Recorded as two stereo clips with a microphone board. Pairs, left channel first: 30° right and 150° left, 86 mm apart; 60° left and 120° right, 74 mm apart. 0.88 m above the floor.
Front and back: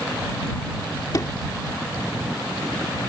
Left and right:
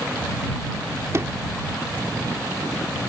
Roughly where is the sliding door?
Right.